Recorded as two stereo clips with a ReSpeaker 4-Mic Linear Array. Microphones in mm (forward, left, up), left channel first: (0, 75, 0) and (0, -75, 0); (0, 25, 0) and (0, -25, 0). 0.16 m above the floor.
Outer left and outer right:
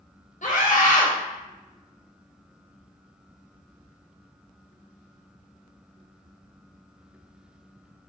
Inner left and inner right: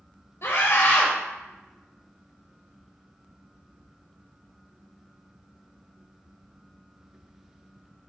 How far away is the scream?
About 2.5 m.